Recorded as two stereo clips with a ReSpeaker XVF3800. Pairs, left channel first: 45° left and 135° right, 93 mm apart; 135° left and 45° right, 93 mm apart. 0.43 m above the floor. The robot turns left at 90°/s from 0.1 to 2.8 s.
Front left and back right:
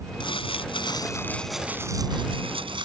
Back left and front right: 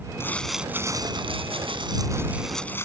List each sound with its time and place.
0.2 s crumpling: 75° left; by 2.9 s 160° right